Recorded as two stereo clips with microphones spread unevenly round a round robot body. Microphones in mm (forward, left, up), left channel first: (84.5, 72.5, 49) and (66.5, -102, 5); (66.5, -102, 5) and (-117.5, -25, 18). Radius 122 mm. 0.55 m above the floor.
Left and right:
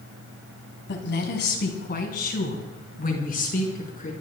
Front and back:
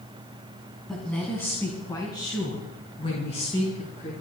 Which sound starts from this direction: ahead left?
A woman speaking, at 0.9 s.